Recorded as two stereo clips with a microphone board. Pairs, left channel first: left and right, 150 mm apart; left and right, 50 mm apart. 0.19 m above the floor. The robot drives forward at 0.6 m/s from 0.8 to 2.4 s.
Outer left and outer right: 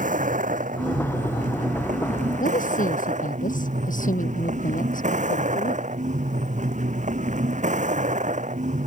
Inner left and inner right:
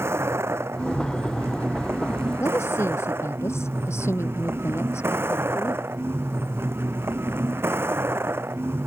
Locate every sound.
0.0 s a vehicle: 60° right (ahead or behind); by 8.9 s 55° right (ahead or behind)
2.4 s a woman speaking: 60° left (ahead or behind)